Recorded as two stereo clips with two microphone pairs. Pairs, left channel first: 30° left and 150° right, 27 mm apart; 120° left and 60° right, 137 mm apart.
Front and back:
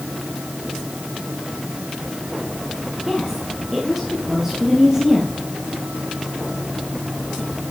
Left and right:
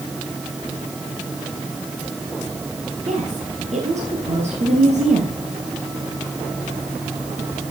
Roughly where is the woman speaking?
Right.